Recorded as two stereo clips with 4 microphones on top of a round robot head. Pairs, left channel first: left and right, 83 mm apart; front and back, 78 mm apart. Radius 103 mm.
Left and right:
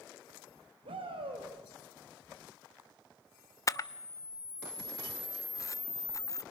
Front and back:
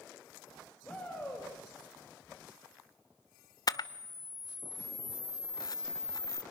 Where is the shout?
80° right, 3 m.